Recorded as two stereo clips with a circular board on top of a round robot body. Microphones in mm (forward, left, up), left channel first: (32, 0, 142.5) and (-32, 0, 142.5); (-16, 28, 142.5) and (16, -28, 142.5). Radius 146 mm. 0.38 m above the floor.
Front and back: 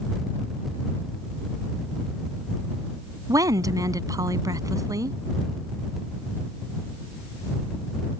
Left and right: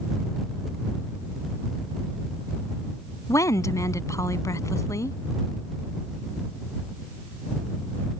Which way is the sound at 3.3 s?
155° left.